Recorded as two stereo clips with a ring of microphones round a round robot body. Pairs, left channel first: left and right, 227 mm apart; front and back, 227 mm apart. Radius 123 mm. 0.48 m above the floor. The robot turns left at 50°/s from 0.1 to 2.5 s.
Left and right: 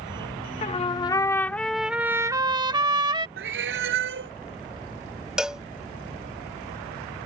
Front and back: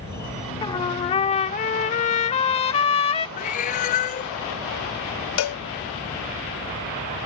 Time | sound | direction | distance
0.6 | a trumpet | 55° left | ?
3.4 | a cat meowing | 55° right | ?
5.4 | a cowbell | 5° right | ?